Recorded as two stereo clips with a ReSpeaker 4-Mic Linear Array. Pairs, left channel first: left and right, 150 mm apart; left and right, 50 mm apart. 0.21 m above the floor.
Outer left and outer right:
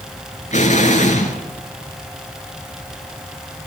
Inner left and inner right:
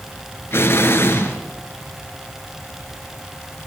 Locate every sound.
0.5 s an explosion: 50° left (ahead or behind), 3.5 m